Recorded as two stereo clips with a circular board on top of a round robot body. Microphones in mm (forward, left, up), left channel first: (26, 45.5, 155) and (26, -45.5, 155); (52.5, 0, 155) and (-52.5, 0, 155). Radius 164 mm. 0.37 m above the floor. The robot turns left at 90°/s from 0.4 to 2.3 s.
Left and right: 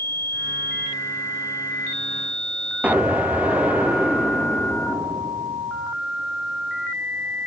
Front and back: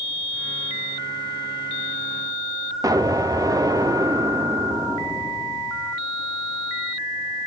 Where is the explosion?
155° right, 1.1 m.